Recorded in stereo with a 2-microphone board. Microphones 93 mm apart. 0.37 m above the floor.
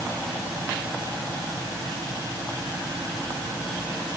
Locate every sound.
Only background noise.